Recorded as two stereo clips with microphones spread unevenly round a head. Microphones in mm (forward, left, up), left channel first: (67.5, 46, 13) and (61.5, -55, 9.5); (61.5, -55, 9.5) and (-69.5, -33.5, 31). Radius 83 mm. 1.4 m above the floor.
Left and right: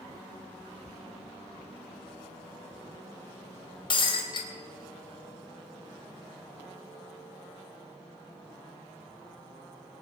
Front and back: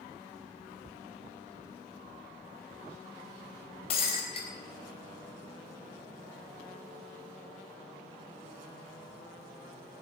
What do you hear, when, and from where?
3.9 s breaking glass: 50° left, 3.5 m